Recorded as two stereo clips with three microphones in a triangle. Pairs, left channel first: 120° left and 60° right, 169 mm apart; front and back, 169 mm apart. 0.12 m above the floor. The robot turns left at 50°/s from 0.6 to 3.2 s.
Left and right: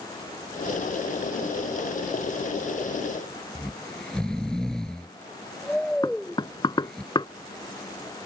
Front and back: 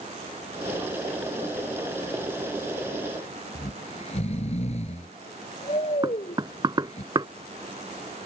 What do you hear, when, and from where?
3.5 s snoring: 35° left
6.0 s knocking: 145° left